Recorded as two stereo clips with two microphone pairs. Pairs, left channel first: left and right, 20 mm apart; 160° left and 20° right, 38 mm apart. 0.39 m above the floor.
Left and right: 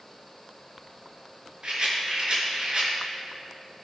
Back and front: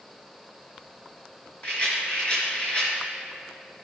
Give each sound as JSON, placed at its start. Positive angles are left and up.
{"t": 1.6, "sound": "a rattle", "azimuth_deg": -140, "distance_m": 4.5}